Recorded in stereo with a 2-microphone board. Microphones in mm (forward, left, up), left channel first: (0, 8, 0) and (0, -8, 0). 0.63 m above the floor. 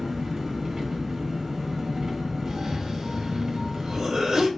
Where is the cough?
55° right (ahead or behind), 3 m.